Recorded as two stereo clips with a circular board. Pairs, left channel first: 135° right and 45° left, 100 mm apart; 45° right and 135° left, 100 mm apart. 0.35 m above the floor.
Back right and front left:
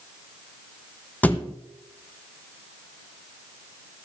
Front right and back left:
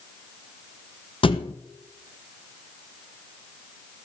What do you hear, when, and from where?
1.2 s a thud: 65° right, 0.7 m